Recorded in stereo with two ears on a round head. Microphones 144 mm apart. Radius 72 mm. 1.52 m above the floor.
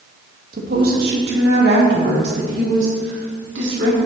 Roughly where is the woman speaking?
Right.